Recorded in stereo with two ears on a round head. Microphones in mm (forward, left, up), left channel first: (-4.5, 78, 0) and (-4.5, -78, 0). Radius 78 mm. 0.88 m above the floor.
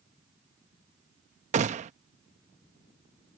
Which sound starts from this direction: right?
A gunshot, at 1.5 s.